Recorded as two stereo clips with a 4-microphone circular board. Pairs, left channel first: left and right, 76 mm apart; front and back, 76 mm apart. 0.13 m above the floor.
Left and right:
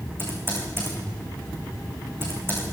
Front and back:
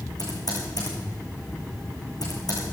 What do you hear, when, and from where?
0.2 s typing on a keyboard: 30° right, 4.5 m